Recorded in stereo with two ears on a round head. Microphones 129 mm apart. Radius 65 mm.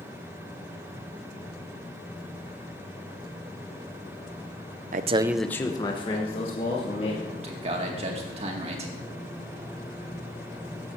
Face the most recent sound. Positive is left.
turn(degrees=-45)  # may be behind; listen again after turning